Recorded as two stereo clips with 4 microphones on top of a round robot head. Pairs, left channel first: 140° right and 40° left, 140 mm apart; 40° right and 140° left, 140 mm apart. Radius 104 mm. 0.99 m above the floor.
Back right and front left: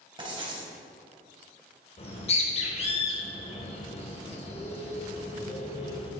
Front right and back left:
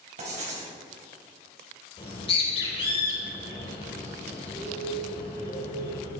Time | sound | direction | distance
0.2 | writing | 100° left | 3.5 m
2.0 | a bird | 95° right | 3 m